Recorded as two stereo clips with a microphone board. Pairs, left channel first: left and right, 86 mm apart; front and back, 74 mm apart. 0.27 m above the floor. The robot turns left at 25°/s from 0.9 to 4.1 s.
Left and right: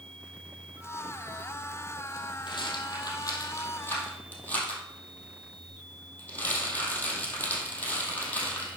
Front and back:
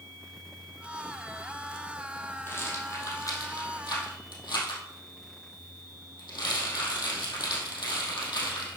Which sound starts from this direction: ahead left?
A rattle, at 2.5 s.